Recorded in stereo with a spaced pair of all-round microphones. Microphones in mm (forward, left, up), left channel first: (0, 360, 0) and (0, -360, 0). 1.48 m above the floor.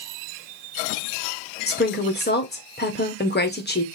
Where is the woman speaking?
15° left (ahead or behind), 0.9 m.